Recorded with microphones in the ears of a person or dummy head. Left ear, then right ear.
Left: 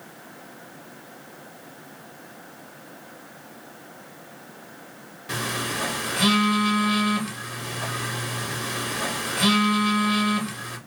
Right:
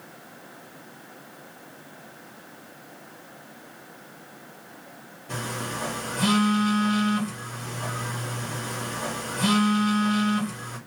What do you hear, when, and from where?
5.3 s a phone buzzing: 55° left (ahead or behind), 1.4 m